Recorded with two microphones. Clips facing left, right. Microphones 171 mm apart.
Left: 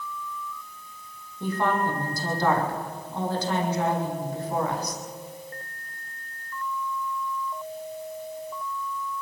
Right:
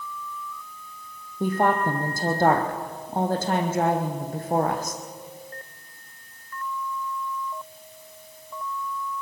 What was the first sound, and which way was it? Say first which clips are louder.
A woman speaking: right 3 dB; 50° right (ahead or behind).